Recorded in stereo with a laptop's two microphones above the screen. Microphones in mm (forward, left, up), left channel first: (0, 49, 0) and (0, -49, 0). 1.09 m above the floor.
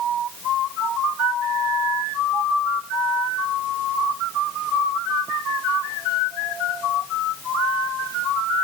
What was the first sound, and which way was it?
Only background noise.